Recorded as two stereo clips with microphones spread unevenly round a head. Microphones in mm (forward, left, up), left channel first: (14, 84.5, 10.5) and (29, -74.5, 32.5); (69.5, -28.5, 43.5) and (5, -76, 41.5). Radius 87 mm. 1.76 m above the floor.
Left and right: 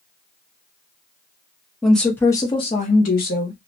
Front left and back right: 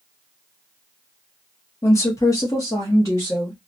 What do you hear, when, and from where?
1.8 s a woman speaking: 5° right, 0.8 m; by 3.6 s 110° left, 0.9 m